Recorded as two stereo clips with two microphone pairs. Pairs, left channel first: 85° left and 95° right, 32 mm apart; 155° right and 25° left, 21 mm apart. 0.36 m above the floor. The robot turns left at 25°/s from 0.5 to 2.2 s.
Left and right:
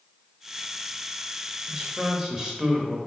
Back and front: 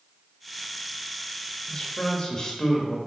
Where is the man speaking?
130° right, 1.3 m; by 3.0 s 145° right, 1.3 m.